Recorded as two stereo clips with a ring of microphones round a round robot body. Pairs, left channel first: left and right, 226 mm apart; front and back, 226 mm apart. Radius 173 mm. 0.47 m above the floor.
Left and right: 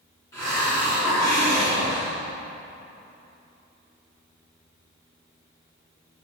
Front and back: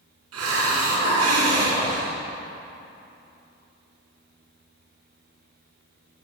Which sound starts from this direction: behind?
A hiss, at 0.3 s.